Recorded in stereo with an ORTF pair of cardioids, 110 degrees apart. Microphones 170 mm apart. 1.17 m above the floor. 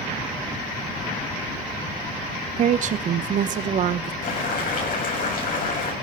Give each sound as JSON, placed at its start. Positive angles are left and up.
{"t": 2.6, "sound": "a woman speaking", "azimuth_deg": -50, "distance_m": 0.8}
{"t": 4.2, "sound": "boiling", "azimuth_deg": 55, "distance_m": 8.0}